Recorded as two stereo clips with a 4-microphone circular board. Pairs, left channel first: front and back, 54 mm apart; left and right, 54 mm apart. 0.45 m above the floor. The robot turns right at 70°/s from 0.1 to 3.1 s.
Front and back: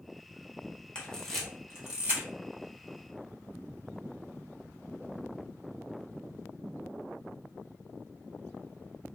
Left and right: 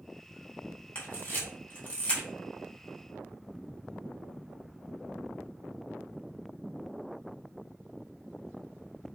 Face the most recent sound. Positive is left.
turn(degrees=-155)